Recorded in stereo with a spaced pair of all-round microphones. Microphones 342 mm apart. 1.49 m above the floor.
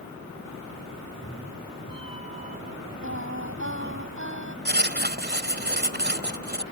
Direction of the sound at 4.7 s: 30° right (ahead or behind).